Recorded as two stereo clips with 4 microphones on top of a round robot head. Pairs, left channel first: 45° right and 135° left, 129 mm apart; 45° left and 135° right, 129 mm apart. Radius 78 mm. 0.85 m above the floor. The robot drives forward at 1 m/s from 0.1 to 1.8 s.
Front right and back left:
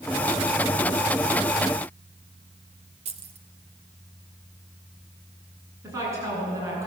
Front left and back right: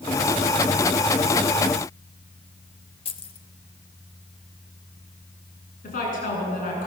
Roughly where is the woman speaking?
Ahead left.